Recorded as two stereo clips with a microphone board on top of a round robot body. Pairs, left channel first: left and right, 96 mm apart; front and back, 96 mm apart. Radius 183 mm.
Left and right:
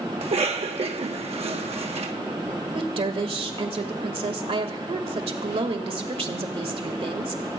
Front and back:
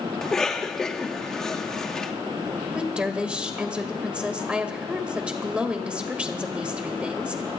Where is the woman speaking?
100° right, 1.8 m.